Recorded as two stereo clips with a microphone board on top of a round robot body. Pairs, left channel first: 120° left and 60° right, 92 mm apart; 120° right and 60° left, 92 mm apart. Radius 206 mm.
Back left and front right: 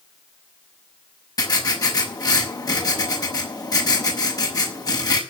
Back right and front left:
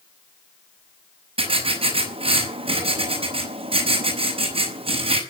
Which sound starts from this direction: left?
Writing, at 1.4 s.